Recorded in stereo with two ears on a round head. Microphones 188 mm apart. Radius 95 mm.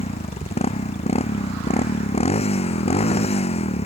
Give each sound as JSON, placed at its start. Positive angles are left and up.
{"t": 0.0, "sound": "a motorcycle", "side_deg": 30}